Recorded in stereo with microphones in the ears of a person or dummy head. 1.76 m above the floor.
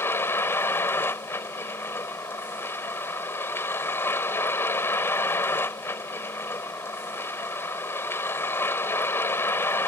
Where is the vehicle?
10° left (ahead or behind).